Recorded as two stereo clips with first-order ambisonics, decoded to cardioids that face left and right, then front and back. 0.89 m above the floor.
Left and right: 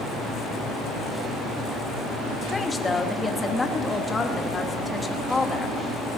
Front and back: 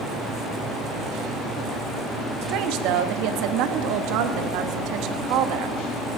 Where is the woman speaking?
165° left, 1.1 m.